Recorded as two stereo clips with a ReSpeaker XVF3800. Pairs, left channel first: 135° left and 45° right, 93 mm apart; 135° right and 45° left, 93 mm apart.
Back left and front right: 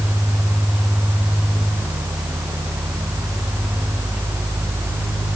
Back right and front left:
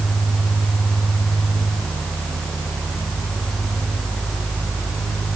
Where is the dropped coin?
No dropped coin in this recording.